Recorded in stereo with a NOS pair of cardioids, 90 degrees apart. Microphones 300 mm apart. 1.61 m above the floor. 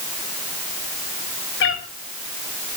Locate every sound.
1.6 s a cat meowing: 45° left, 5 m